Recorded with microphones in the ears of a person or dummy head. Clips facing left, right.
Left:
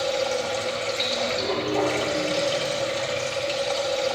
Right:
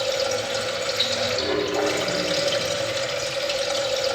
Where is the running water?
15° right (ahead or behind), 3.5 m.